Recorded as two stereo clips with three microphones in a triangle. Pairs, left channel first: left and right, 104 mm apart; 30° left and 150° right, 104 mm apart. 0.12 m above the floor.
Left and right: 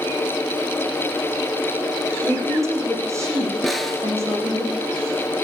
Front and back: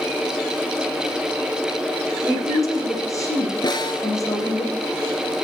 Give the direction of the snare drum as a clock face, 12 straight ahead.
12 o'clock.